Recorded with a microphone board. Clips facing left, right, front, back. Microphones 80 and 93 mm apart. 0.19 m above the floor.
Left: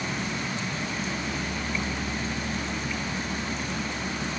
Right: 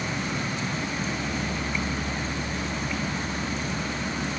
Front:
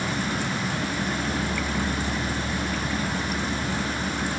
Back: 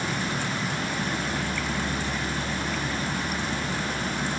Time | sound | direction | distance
0.0 | an insect | 65° right | 2.5 m